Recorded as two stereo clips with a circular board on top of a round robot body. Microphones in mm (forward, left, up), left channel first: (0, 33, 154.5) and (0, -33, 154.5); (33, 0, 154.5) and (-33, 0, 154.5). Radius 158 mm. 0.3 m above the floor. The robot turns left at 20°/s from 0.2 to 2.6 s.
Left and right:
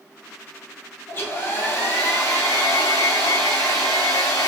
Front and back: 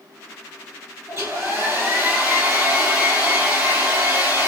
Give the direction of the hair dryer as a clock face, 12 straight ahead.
7 o'clock.